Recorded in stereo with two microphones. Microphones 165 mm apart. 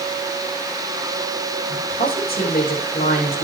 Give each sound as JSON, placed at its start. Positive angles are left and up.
{"t": 1.7, "sound": "a woman speaking", "side_deg": 65, "distance_m": 8.0}